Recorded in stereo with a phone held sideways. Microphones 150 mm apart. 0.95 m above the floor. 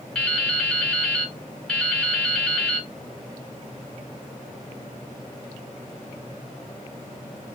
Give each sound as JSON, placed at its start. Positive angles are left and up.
{"t": 0.1, "sound": "dripping", "side_deg": 5, "distance_m": 0.8}